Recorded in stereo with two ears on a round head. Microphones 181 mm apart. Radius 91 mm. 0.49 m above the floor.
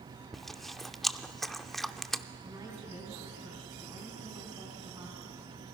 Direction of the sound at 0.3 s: Centre (ahead or behind).